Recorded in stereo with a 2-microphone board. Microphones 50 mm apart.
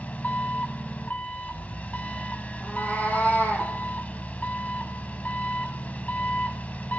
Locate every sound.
0.0 s an engine running: 30° left (ahead or behind), 0.8 m
2.6 s a cat meowing: 30° left (ahead or behind), 3.5 m